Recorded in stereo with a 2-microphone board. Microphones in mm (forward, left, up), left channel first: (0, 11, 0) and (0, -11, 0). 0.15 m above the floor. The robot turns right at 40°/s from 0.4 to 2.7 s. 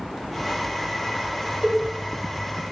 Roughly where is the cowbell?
Right.